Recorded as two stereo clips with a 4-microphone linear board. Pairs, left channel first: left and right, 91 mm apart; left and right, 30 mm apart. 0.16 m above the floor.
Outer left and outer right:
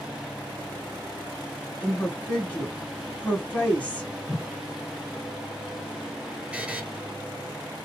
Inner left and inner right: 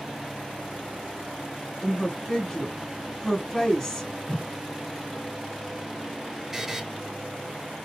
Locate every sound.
1.8 s a woman speaking: 15° left (ahead or behind), 1.5 m
4.3 s a whoosh: 35° left (ahead or behind), 2.0 m
6.5 s a buzzer: 15° right (ahead or behind), 0.8 m